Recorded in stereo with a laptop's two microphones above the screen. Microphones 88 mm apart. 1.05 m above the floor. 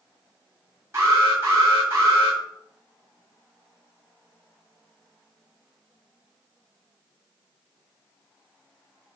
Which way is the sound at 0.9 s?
35° right (ahead or behind).